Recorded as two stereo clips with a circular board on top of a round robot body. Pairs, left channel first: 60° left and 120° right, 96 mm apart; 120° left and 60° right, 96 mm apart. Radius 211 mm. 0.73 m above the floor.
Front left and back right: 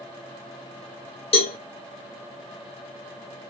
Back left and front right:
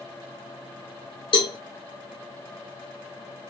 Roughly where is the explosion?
No explosion in this recording.